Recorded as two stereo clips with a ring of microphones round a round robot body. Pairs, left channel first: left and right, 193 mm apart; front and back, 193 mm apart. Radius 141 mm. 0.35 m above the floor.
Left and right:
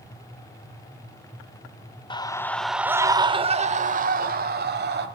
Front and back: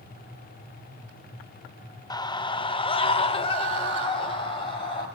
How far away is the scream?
About 0.9 m.